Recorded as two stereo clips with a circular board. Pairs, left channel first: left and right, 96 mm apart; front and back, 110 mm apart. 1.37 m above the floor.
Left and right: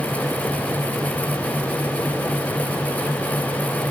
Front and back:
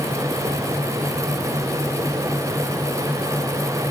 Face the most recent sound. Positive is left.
No sound to turn to.